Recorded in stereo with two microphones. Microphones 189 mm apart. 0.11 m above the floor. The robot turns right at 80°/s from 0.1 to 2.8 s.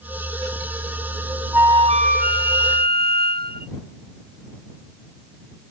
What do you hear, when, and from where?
1.5 s a flute: 170° right; by 3.7 s 70° right